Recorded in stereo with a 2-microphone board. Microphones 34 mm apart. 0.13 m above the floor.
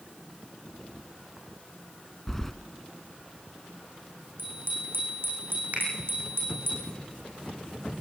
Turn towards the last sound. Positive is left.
turn(degrees=-50)  # may be behind; listen again after turning